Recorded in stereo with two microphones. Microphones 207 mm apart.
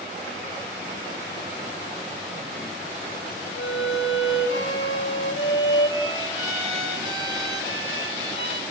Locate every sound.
3.6 s a violin: 85° left, 3.5 m